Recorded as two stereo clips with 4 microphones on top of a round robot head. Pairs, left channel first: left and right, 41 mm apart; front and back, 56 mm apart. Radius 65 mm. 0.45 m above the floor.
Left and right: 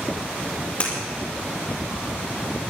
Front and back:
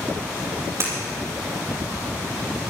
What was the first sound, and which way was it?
Breaking glass, 145° left.